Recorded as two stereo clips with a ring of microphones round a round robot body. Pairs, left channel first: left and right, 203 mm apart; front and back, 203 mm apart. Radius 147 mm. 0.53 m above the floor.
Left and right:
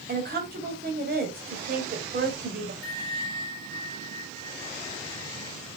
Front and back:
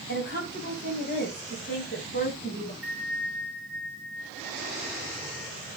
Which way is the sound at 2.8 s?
35° left.